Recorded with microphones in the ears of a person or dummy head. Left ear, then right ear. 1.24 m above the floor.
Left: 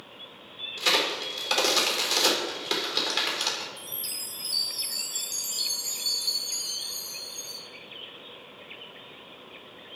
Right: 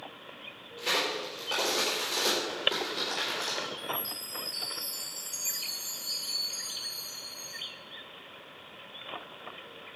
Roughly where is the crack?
Left.